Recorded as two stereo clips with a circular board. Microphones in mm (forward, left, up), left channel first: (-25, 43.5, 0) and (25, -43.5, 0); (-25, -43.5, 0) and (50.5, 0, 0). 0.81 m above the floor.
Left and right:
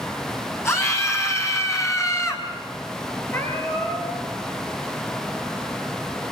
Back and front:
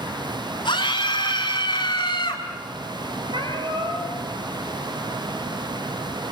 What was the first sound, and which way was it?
A scream, straight behind.